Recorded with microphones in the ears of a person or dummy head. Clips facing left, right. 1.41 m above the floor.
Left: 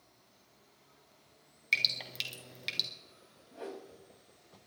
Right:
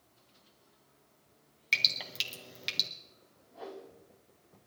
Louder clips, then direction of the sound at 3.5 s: Left 1 dB; 35° left (ahead or behind).